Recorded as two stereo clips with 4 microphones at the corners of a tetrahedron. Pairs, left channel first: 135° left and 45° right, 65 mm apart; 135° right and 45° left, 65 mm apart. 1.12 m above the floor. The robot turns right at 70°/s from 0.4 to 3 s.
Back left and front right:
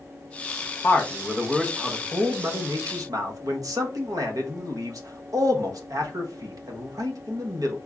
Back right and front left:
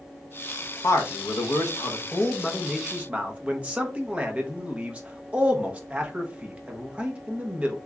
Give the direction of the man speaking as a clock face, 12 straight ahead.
6 o'clock.